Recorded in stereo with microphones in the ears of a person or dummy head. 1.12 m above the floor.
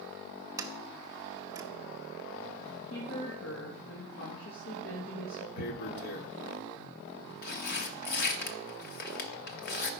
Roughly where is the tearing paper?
Left.